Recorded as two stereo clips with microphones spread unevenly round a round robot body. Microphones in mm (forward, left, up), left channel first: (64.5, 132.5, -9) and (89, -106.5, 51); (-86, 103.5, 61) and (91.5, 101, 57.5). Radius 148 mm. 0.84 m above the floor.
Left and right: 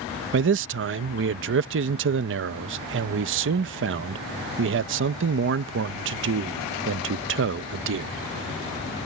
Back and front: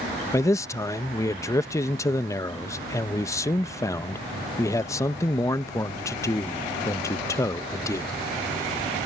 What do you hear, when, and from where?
0.3 s a man speaking: 115° right